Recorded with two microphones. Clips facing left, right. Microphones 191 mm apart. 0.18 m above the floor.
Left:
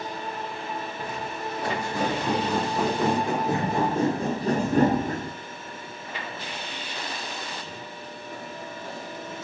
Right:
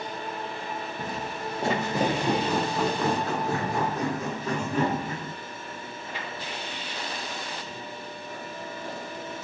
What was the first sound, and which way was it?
Footsteps, 40° right (ahead or behind).